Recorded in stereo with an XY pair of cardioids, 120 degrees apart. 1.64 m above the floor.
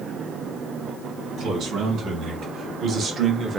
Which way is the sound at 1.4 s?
55° right.